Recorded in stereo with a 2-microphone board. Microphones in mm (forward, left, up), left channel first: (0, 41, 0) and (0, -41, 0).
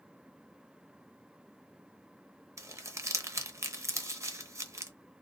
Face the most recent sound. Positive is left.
turn(degrees=-35)  # may be behind; listen again after turning